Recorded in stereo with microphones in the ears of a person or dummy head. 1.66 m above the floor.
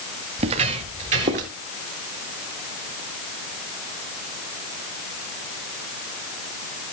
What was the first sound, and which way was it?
Footsteps, 35° right (ahead or behind).